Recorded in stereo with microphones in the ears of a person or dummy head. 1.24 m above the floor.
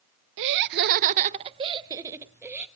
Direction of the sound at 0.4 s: 70° right (ahead or behind).